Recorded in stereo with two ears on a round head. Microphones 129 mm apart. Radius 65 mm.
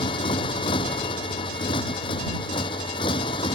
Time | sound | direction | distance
0.0 | a motorcycle | 40° left (ahead or behind) | ?